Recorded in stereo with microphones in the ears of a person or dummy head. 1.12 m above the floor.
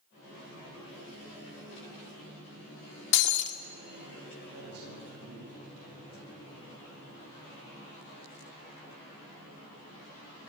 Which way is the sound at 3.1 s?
65° left (ahead or behind).